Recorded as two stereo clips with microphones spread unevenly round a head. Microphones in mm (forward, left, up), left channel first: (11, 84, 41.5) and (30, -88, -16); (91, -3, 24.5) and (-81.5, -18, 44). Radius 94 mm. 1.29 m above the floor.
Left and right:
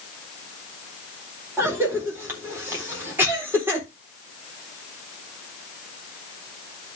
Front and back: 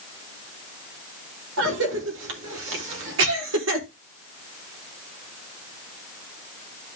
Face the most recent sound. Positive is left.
turn(degrees=-160)